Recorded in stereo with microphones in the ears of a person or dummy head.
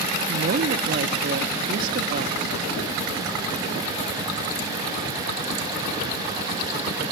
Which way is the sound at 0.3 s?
45° right (ahead or behind).